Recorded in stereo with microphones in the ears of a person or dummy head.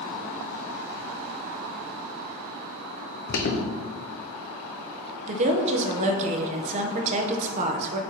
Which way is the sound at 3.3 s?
55° left (ahead or behind).